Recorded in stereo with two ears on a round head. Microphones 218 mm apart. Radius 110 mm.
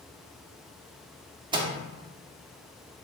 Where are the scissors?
I don't hear scissors.